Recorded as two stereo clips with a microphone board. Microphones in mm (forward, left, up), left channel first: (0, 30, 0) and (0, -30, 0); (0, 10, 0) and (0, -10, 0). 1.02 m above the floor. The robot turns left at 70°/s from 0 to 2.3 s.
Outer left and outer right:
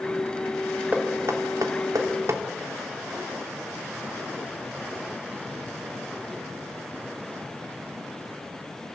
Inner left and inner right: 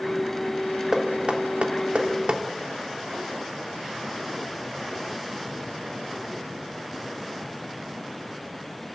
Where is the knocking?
30° right (ahead or behind), 2.5 m; by 2.4 s 55° right (ahead or behind), 2.5 m.